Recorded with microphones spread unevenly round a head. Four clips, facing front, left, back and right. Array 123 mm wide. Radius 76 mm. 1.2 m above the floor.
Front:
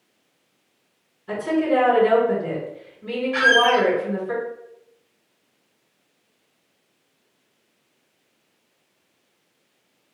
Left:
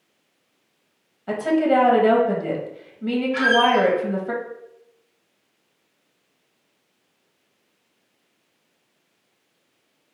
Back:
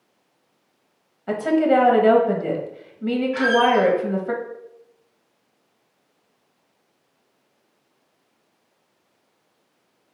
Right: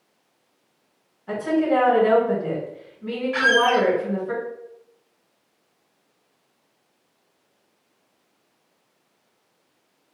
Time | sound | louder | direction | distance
1.3 | a woman speaking | left 2 dB, back 3 dB | 135° left | 1.4 m
3.3 | a squeak | even, front 1 dB | 65° right | 0.7 m